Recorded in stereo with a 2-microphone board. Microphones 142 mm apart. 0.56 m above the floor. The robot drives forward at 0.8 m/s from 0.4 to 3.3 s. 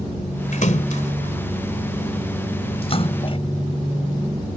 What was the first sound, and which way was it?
A splash, 65° left (ahead or behind).